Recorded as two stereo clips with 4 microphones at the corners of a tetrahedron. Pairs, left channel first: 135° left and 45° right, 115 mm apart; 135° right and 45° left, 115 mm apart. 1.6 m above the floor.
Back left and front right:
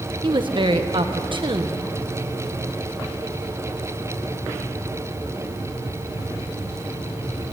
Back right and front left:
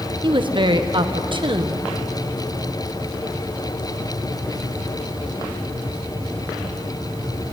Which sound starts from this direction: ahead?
A woman speaking, at 0.2 s.